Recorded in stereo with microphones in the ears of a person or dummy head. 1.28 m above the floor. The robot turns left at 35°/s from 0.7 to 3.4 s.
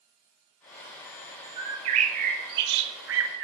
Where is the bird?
25° right, 0.6 m; by 3.4 s 90° right, 0.6 m.